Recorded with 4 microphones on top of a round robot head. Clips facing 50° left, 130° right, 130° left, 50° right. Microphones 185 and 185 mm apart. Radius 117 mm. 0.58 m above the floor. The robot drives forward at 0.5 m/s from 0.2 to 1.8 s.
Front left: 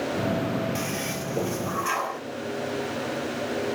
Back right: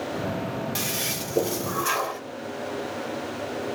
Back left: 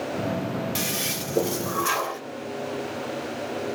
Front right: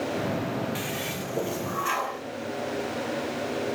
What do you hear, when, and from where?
0.8 s a toilet flushing: 175° left, 0.6 m; by 2.2 s straight behind, 1.1 m